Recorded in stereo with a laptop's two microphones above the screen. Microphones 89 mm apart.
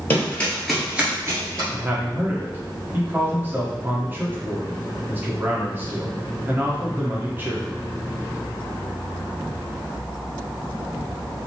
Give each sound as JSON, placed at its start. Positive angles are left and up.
{"t": 0.1, "sound": "running footsteps", "side_deg": 25, "distance_m": 1.5}
{"t": 1.7, "sound": "a man speaking", "side_deg": -25, "distance_m": 0.9}